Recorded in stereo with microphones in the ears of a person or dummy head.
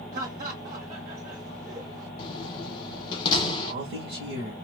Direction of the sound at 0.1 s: 50° right (ahead or behind).